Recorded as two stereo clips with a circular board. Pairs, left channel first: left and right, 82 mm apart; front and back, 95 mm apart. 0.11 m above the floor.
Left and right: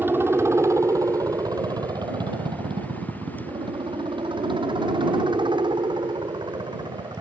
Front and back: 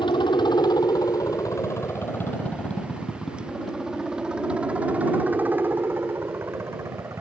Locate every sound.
0.0 s a helicopter: 30° right; by 7.2 s 120° right